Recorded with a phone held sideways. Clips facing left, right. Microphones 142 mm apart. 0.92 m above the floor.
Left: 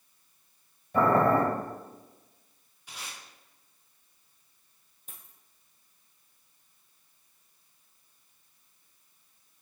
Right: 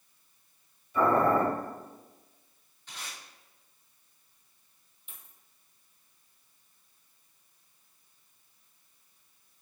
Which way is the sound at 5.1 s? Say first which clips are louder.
Left 2 dB; 40° left (ahead or behind).